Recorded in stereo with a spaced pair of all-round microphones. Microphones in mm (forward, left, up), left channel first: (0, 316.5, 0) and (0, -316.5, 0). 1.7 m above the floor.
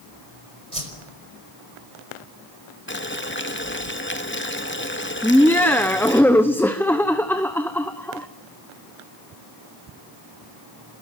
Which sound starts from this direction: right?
A whoosh, at 0.7 s.